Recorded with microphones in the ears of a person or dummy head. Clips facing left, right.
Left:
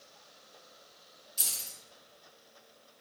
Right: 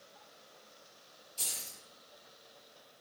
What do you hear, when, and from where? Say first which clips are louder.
1.4 s keys jangling: right 1 dB; 25° left (ahead or behind), 0.7 m